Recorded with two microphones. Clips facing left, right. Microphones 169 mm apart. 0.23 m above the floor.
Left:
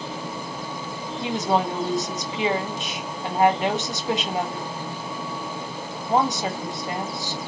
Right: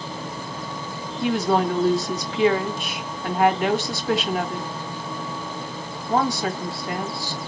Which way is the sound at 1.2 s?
20° left (ahead or behind).